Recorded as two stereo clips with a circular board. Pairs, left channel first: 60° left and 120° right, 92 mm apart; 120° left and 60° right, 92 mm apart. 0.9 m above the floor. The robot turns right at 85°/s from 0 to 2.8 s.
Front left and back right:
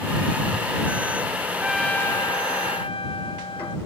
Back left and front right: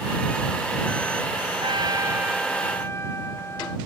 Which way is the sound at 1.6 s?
45° right.